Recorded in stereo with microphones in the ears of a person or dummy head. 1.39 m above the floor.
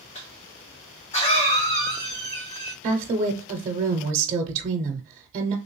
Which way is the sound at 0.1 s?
35° left (ahead or behind).